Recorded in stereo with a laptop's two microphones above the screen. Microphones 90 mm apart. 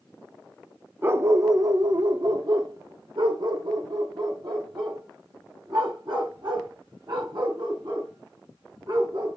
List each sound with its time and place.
1.0 s a dog barking: 25° right (ahead or behind), 0.6 m; by 9.4 s 60° right (ahead or behind), 4.5 m